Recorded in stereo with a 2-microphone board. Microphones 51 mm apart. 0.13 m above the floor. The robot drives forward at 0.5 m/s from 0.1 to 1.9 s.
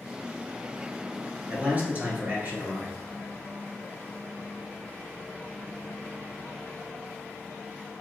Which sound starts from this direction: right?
A man speaking, at 1.5 s.